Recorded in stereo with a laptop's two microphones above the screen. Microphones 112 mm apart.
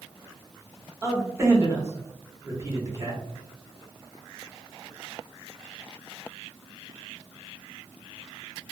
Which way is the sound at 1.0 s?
25° right (ahead or behind).